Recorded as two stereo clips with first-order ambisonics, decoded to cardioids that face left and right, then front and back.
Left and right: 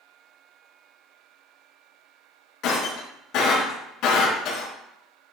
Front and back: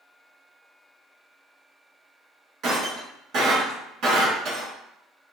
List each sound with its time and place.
2.6 s breaking glass: 130° left, 4 m